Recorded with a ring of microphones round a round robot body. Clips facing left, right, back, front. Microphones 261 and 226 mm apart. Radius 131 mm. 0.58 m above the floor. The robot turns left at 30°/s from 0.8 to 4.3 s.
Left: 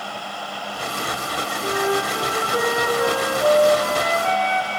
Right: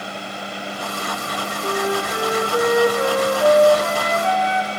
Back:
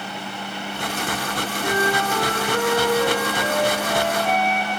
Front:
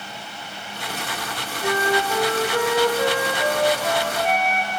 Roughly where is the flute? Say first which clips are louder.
Even, front 1 dB; ahead.